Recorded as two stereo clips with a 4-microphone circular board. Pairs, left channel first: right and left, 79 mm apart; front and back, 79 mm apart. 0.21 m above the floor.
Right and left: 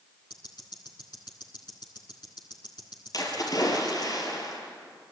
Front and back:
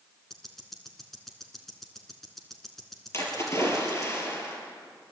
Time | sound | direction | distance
0.3 | ticking | 85° right | 2.5 m
3.1 | a splash | 55° right | 5 m